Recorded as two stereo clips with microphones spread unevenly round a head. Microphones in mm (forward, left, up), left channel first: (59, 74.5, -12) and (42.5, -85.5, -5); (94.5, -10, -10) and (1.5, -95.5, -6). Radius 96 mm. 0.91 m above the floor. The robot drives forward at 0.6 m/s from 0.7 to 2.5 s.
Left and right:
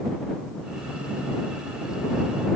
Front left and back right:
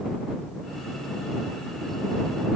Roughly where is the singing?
I don't hear singing.